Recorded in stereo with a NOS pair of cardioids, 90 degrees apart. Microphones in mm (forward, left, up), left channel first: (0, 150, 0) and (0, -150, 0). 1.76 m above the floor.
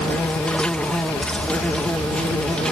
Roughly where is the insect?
Ahead.